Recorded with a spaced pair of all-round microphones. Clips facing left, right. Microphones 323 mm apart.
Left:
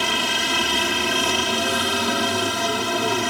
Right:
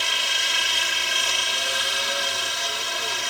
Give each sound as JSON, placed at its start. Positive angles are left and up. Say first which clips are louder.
{"t": 0.0, "sound": "a helicopter", "louder": "left 11 dB", "side_deg": 70}